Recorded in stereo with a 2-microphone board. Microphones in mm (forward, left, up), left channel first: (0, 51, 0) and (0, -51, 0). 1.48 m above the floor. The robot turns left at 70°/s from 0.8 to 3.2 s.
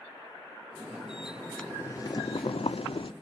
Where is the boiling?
165° left, 0.6 m; by 3.1 s 60° left, 0.6 m.